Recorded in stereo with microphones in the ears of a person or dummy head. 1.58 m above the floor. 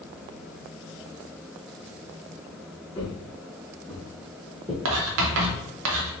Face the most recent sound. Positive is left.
turn(degrees=-75)  # may be behind; listen again after turning